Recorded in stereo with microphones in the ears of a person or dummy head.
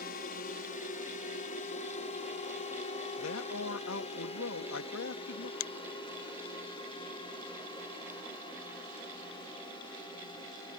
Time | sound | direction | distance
0.0 | a drone | 45° left (ahead or behind) | ?
3.2 | a man speaking | 70° left (ahead or behind) | ?
5.6 | a finger snap | 60° left (ahead or behind) | ?